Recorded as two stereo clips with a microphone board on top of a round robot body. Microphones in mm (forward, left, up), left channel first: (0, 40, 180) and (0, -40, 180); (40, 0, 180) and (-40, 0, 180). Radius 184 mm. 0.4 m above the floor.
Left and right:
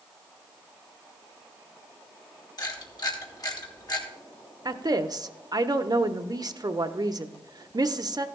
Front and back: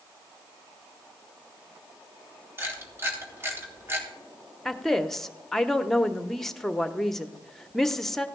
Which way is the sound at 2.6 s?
120° left.